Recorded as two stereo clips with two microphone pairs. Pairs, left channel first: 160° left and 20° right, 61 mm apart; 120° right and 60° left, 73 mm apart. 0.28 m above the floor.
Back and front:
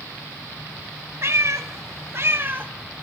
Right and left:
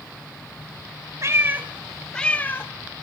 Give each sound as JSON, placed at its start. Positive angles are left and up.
{"t": 1.2, "sound": "a cat meowing", "azimuth_deg": 20, "distance_m": 0.7}